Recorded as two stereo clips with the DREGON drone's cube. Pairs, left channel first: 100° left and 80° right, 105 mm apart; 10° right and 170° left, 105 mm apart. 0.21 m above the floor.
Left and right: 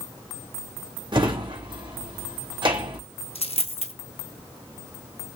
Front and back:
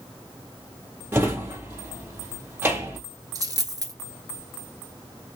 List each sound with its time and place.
1.1 s a drawer: 120° right, 1.7 m
3.4 s a dropped coin: 120° left, 1.1 m